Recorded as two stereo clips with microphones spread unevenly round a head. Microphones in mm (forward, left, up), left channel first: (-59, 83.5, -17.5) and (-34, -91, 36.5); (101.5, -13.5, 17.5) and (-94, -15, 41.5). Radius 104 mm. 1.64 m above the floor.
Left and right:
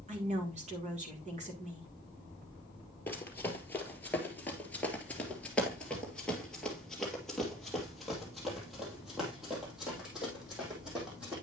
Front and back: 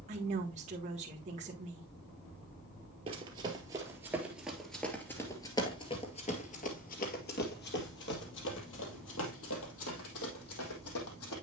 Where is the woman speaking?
125° right, 1.8 m.